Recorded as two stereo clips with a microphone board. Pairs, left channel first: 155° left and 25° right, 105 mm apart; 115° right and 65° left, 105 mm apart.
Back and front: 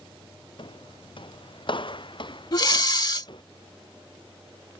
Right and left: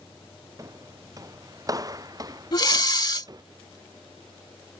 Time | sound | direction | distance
0.6 | footsteps | 125° left | ?
2.5 | breathing | 160° right | ?